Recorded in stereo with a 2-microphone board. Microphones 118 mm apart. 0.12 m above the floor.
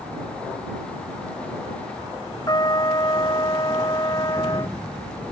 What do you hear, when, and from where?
2.5 s a trumpet: 35° left (ahead or behind)